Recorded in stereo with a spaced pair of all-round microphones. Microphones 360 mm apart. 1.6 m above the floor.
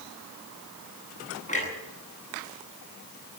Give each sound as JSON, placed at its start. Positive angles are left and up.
{"t": 1.5, "sound": "a clunk", "side_deg": 20, "distance_m": 9.0}